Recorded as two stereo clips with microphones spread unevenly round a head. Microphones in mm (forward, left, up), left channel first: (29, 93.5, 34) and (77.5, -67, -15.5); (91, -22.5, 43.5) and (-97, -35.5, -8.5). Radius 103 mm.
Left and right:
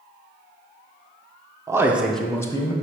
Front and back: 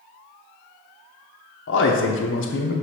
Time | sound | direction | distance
1.7 | a man speaking | 20° right | 1.0 m